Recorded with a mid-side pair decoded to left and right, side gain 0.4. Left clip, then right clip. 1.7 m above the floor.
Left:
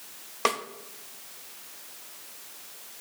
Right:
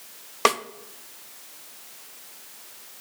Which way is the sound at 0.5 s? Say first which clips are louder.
Right 5 dB; 45° right.